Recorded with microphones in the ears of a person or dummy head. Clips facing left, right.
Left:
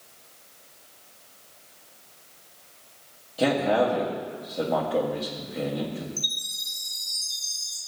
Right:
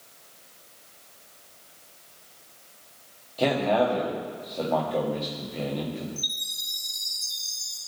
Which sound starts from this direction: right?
A chime, at 6.2 s.